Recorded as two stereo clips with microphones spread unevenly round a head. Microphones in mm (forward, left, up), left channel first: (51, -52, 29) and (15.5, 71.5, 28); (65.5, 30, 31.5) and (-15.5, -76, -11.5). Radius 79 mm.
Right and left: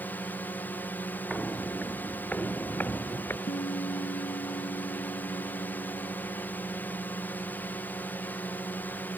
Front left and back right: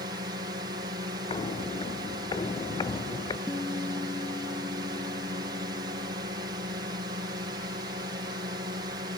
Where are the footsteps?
10° left; by 3.4 s straight ahead.